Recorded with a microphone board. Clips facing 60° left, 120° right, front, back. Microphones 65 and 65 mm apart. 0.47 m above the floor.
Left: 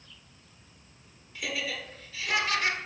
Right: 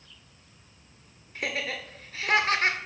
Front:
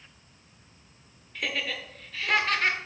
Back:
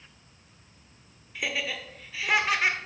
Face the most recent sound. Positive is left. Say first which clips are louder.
# right 2 dB, even
turn(degrees=-100)